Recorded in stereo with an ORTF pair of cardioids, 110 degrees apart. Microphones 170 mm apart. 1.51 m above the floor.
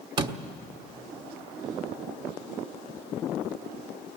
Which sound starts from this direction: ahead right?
A door slam, at 0.2 s.